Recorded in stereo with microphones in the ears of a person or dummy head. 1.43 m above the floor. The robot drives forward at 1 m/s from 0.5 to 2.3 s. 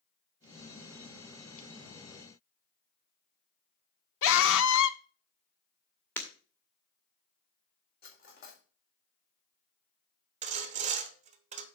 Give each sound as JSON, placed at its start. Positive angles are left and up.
{"t": 4.2, "sound": "a scream", "side_deg": 75, "distance_m": 0.9}
{"t": 6.2, "sound": "breaking glass", "side_deg": 10, "distance_m": 1.9}
{"t": 8.0, "sound": "cutlery clinking", "side_deg": 50, "distance_m": 2.5}
{"t": 10.4, "sound": "sawing", "side_deg": -40, "distance_m": 1.1}